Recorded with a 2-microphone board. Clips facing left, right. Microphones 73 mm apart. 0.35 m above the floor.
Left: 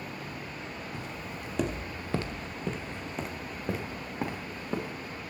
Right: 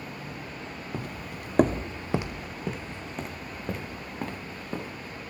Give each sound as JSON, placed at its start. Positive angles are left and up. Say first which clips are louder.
{"t": 0.9, "sound": "footsteps", "louder": "right 2 dB", "side_deg": -50, "distance_m": 0.8}